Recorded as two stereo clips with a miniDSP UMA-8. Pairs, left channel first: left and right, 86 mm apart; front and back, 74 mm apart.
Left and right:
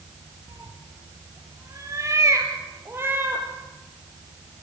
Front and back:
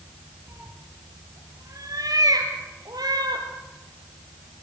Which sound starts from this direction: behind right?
A cat meowing, at 0.5 s.